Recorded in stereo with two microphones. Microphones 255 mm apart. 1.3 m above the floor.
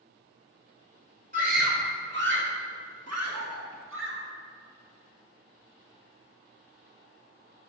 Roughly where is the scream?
Right.